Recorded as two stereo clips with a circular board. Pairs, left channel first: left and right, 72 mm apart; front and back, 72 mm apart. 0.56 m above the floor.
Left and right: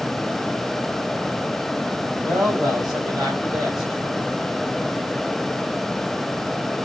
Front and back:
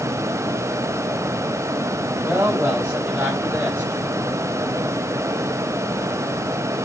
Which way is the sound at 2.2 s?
115° right.